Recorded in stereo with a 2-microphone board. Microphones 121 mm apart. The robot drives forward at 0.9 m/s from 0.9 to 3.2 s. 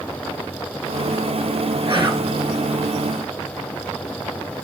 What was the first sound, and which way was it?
Whispering, 40° right (ahead or behind).